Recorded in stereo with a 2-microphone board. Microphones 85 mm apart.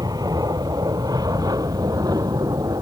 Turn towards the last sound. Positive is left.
turn(degrees=-50)  # may be behind; listen again after turning